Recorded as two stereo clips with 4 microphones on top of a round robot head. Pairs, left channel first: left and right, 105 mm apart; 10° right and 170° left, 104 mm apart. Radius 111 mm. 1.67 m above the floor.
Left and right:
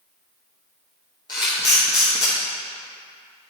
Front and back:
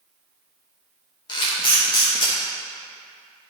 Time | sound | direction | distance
1.3 | a camera shutter | 30° left | 1.5 m